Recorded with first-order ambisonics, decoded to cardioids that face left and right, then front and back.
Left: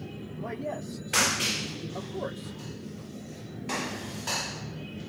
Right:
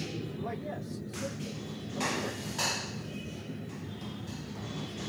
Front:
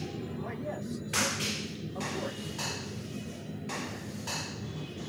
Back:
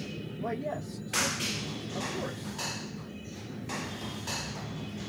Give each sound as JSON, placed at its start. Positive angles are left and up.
{"t": 0.4, "sound": "a man speaking", "azimuth_deg": 150, "distance_m": 1.0}